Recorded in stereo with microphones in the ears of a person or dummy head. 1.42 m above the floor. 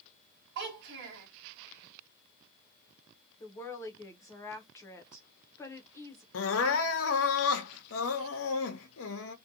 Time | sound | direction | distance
0.6 | a child speaking | 55° right (ahead or behind) | 1.5 m
3.4 | a woman speaking | 20° left (ahead or behind) | 0.6 m
6.3 | crying | 75° left (ahead or behind) | 0.6 m